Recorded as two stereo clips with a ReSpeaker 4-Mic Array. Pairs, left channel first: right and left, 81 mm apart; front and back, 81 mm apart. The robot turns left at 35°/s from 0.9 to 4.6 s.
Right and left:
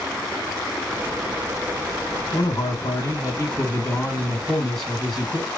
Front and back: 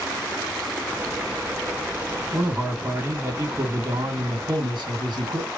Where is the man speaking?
100° right, 1.7 m; by 5.5 s straight behind, 1.7 m.